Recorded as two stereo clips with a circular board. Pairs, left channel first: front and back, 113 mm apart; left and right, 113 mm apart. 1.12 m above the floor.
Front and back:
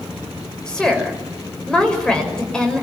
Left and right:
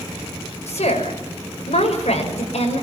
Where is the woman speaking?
85° left, 6 m.